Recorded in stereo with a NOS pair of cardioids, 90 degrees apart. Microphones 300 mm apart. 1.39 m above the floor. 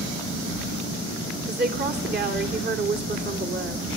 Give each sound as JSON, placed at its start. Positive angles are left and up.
{"t": 1.5, "sound": "a woman speaking", "azimuth_deg": -35, "distance_m": 3.0}